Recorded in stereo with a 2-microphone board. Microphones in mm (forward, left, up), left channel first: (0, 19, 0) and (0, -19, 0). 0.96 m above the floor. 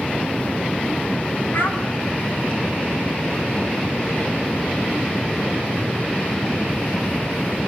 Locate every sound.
1.5 s a child speaking: 65° left (ahead or behind), 6 m